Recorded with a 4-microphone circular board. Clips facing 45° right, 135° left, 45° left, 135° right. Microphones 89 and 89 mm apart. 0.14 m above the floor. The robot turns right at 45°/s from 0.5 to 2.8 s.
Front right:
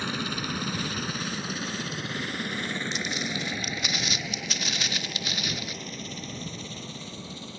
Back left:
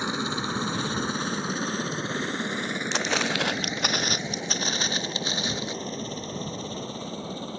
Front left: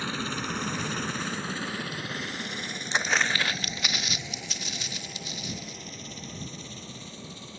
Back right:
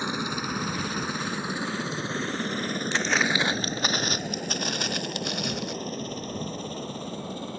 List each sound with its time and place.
0.0 s a helicopter: 175° left; by 7.6 s 175° right
2.9 s footsteps: 115° left; by 5.8 s 160° right